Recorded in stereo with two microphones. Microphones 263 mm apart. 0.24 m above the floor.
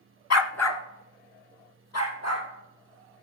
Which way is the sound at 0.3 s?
75° left (ahead or behind).